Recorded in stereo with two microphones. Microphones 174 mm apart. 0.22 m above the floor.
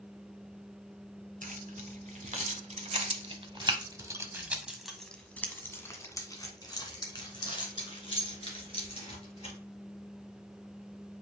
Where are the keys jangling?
50° right (ahead or behind), 1.7 m; by 9.5 s 35° left (ahead or behind), 3 m.